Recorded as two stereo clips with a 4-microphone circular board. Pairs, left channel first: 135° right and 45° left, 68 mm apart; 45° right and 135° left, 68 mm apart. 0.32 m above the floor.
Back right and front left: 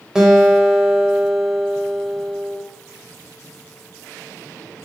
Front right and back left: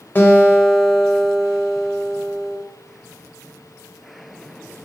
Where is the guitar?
30° right, 0.7 m.